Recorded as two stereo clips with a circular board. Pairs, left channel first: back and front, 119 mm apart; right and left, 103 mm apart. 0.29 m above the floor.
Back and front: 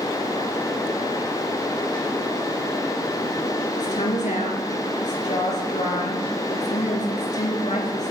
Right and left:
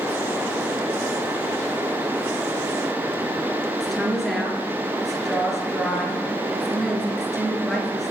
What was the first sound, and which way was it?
A woman speaking, straight behind.